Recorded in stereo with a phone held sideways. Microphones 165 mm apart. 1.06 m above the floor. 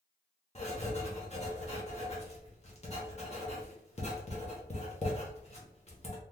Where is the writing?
40° left (ahead or behind), 1.0 m.